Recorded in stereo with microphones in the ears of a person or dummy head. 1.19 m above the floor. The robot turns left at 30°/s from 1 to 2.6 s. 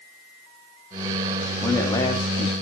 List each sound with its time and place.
1.6 s a man speaking: 5° left (ahead or behind), 2.0 m; by 2.5 s 35° left (ahead or behind), 2.0 m